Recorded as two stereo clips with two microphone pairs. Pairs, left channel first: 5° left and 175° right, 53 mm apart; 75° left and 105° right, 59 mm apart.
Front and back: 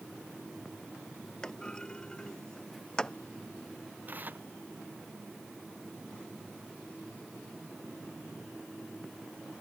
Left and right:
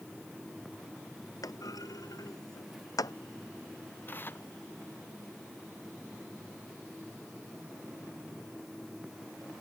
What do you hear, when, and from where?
1.4 s a clunk: 80° left
4.1 s tearing paper: 130° left